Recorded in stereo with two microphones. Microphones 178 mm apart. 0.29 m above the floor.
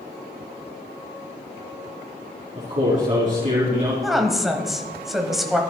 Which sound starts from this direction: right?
A man speaking, at 2.5 s.